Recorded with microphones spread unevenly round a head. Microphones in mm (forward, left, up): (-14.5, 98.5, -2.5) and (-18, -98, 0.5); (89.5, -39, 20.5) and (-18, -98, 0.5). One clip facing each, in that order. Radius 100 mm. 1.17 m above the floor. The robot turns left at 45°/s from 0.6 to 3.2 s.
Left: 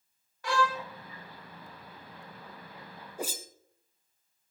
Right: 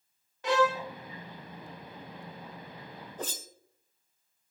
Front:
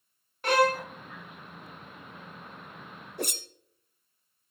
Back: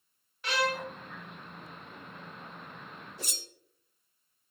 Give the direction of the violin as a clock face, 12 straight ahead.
1 o'clock.